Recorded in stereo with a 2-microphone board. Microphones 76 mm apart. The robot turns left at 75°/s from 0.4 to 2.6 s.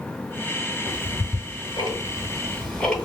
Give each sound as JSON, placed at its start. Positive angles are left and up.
{"t": 0.9, "sound": "ticking", "side_deg": 40, "distance_m": 1.8}